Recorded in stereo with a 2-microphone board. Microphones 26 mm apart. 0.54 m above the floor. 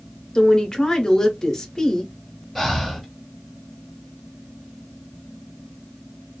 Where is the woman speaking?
20° left (ahead or behind), 0.8 m.